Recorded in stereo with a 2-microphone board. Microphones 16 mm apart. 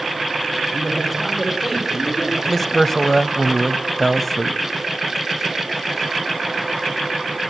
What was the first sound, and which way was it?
A man speaking, centre (ahead or behind).